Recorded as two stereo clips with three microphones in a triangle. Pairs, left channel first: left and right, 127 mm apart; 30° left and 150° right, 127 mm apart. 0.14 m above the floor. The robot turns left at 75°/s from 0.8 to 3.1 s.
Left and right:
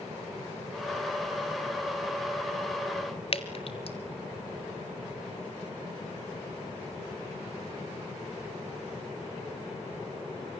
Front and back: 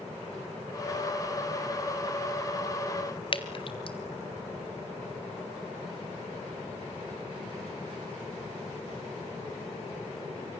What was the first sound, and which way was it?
Dripping, 65° left.